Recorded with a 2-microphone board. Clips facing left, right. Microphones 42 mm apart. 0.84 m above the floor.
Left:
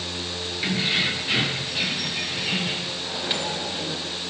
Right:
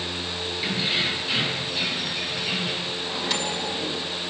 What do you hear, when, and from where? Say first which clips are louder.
0.6 s keys jangling: left 2 dB; 35° left (ahead or behind), 8.5 m
3.0 s a microwave: even; 20° left (ahead or behind), 3.5 m